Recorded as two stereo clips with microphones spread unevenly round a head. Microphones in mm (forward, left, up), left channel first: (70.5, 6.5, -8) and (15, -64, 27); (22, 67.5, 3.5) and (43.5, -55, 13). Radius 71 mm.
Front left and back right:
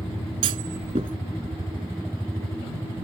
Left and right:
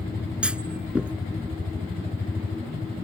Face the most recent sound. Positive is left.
turn(degrees=-160)